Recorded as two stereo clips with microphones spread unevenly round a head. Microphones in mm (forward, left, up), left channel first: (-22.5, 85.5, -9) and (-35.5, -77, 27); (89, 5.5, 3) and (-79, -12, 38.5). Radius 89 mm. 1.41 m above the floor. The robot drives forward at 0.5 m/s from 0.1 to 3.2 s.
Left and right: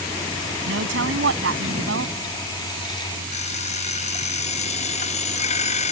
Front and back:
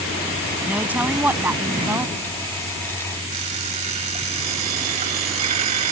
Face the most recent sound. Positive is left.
turn(degrees=140)